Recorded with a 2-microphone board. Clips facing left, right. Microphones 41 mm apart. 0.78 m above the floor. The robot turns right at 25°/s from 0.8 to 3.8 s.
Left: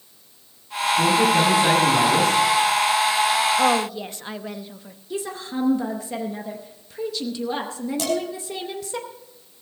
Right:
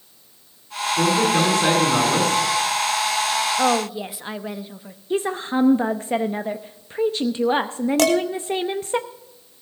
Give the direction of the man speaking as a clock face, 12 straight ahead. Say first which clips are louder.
Even; 3 o'clock.